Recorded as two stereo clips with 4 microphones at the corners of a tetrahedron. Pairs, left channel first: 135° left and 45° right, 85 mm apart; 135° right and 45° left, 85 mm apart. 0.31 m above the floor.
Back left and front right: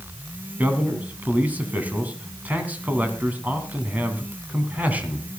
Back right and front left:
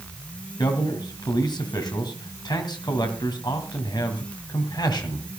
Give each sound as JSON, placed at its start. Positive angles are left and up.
{"t": 0.6, "sound": "a man speaking", "azimuth_deg": -110, "distance_m": 2.5}